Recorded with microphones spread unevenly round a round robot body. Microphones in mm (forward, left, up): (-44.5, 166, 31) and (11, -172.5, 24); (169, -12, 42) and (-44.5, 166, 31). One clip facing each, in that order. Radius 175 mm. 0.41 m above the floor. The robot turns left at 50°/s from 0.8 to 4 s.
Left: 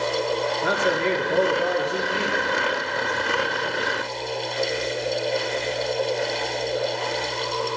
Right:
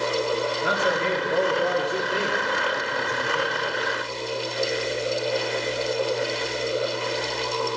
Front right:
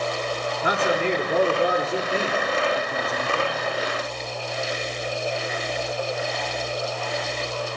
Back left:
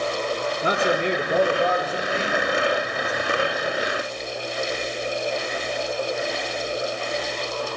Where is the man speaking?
80° left, 6 m; by 3.5 s 55° right, 6 m.